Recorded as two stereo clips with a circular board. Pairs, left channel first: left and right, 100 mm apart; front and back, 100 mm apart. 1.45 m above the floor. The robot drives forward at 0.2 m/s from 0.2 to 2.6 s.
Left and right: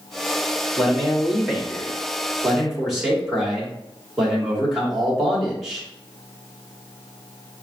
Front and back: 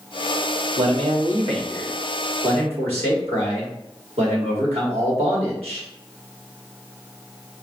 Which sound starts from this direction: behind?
A man speaking, at 0.8 s.